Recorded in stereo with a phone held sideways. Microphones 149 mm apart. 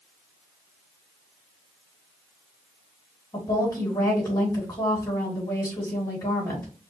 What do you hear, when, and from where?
3.3 s a woman speaking: 20° left (ahead or behind), 2.5 m